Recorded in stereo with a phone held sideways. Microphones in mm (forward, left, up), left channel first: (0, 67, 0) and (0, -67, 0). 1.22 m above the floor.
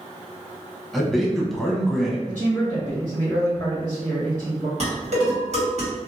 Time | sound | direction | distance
0.9 | a man speaking | centre (ahead or behind) | 0.8 m
2.3 | a man speaking | 80° right | 1.5 m
4.8 | dishes clattering | 55° right (ahead or behind) | 1.5 m